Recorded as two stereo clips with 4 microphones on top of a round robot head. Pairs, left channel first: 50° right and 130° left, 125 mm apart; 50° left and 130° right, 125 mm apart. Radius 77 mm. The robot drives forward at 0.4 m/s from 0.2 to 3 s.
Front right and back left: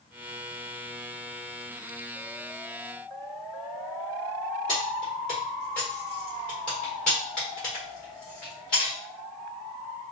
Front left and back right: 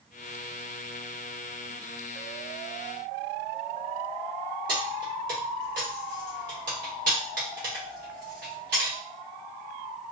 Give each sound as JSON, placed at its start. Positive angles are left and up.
{"t": 4.7, "sound": "keys jangling", "azimuth_deg": -135, "distance_m": 1.2}